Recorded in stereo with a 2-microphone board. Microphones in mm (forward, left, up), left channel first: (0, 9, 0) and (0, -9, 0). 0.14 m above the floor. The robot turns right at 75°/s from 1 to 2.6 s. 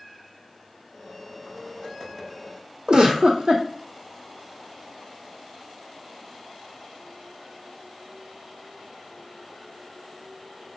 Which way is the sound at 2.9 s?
65° right (ahead or behind).